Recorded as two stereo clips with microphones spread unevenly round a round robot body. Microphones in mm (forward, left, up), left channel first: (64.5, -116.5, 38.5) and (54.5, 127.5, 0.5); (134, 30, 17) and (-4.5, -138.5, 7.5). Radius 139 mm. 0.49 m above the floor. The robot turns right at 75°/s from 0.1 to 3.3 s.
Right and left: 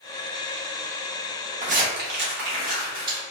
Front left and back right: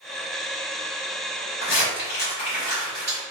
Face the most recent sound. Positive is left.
turn(degrees=170)